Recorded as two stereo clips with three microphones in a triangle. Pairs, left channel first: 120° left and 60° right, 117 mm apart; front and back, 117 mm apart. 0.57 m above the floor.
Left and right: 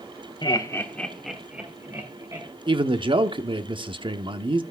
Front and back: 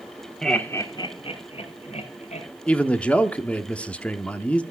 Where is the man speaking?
75° right, 0.9 m.